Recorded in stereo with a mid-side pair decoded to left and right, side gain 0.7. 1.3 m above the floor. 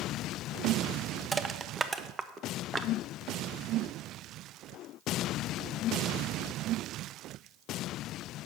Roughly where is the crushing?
Ahead right.